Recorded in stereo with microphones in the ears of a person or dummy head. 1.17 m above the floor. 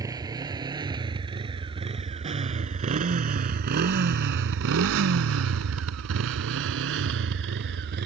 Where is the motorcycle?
20° right (ahead or behind); by 8.1 s 60° right (ahead or behind).